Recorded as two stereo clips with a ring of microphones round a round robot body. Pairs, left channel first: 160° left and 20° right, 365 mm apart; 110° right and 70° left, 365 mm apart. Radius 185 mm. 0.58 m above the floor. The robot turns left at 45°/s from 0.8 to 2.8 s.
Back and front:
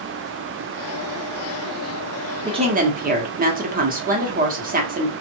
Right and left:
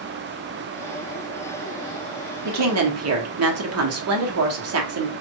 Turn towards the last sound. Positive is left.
turn(degrees=35)